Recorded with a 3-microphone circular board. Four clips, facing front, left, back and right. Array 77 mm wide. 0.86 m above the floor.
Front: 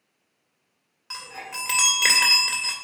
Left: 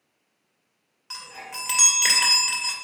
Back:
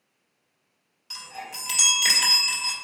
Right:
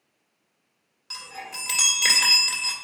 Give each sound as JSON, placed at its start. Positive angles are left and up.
{"t": 1.1, "sound": "a chime", "azimuth_deg": 5, "distance_m": 1.9}